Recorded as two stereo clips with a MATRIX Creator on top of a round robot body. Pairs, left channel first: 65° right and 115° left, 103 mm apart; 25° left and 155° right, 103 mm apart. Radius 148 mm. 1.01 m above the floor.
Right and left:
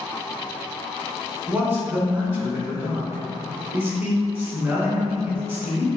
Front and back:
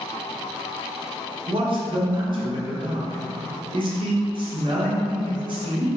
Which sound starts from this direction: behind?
A man speaking, at 1.5 s.